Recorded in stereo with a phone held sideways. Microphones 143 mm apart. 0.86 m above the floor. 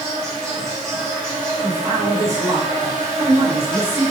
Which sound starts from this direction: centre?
An insect, at 0.0 s.